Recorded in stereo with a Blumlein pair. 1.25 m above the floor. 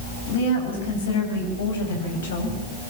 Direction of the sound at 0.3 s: 60° left.